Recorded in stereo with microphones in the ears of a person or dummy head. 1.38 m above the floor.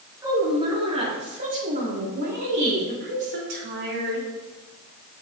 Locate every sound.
0.2 s a woman speaking: 20° right (ahead or behind), 2.5 m; by 4.3 s 65° right (ahead or behind), 3.5 m